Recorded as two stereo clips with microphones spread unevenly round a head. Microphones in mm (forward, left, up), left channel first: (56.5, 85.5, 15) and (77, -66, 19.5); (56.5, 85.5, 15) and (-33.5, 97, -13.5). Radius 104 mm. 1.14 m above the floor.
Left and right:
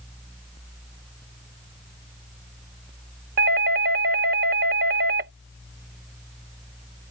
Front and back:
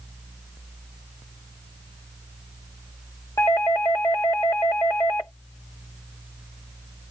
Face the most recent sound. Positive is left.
turn(degrees=-90)